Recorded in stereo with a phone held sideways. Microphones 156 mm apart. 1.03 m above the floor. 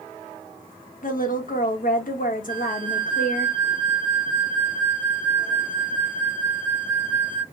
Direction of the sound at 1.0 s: 60° left (ahead or behind).